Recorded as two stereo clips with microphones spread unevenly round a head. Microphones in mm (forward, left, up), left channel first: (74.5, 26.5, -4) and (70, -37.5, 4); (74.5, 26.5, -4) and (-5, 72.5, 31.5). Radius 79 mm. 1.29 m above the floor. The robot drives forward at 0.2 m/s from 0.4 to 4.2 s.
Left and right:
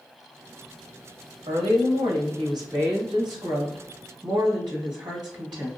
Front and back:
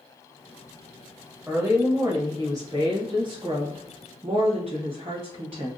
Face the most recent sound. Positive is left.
turn(degrees=-155)